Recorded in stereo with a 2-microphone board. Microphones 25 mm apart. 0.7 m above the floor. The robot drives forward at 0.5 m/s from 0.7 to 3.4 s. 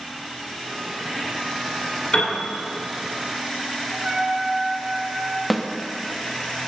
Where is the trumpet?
35° right (ahead or behind), 0.6 m.